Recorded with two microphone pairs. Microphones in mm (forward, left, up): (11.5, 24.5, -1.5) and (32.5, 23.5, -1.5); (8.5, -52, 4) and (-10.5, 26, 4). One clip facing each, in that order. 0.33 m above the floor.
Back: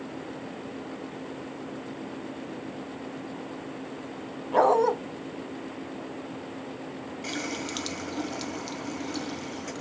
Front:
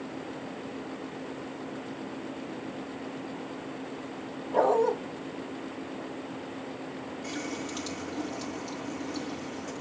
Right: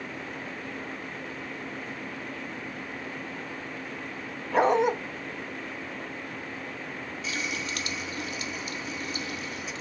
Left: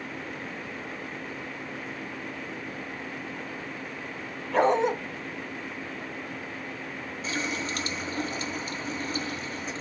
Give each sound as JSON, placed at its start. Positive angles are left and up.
{"t": 4.5, "sound": "a dog barking", "azimuth_deg": -160, "distance_m": 1.1}
{"t": 7.2, "sound": "a running tap", "azimuth_deg": 150, "distance_m": 1.3}